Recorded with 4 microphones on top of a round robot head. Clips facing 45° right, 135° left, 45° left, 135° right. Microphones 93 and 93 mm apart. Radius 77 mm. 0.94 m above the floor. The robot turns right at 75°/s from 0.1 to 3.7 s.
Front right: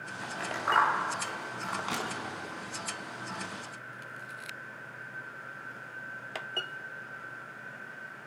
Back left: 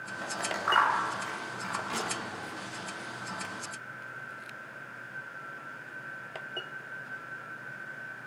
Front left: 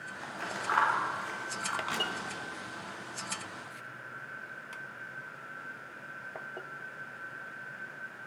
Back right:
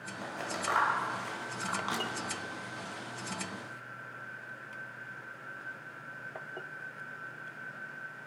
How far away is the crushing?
About 5.5 m.